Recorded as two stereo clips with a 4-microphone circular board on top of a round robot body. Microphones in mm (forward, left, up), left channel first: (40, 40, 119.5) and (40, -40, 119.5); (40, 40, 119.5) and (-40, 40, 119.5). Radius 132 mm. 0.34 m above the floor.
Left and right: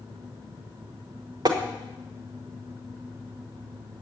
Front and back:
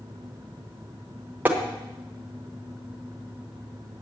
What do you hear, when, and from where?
1.4 s tapping: 110° right, 1.6 m